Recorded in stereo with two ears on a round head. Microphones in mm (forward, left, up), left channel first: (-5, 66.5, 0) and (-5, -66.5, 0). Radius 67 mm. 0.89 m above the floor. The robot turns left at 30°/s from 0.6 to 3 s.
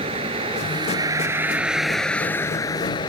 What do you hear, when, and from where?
0.0 s a vehicle: 140° right; by 3.1 s 145° left